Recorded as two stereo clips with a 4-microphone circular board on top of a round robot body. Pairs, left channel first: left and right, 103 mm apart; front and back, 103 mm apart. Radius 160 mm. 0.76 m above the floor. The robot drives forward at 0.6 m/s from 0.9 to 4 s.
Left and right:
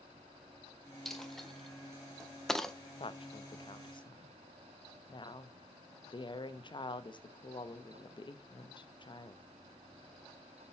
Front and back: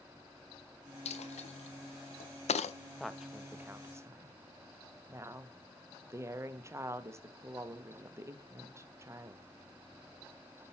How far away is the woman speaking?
About 1.1 m.